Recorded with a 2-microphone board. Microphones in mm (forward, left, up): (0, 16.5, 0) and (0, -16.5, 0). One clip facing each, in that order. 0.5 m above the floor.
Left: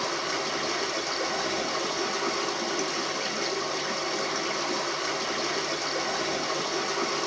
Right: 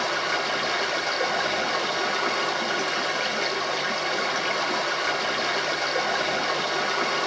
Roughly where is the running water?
Right.